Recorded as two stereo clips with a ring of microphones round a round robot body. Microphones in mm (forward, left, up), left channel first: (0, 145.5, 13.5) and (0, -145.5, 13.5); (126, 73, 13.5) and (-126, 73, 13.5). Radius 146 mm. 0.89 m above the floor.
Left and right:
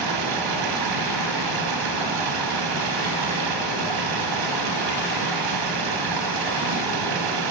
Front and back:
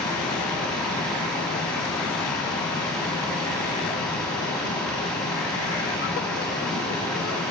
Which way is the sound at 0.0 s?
85° right.